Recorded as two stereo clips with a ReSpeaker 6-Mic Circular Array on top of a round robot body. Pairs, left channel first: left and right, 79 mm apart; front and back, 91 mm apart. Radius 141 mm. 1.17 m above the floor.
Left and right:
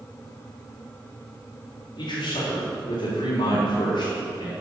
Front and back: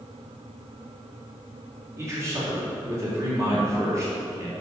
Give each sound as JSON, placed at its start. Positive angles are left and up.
{"t": 2.0, "sound": "a man speaking", "azimuth_deg": 120, "distance_m": 3.0}